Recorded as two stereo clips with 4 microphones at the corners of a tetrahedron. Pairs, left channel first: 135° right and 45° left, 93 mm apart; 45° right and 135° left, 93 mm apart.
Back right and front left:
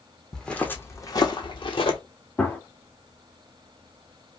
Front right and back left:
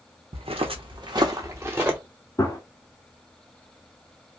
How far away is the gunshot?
About 0.9 m.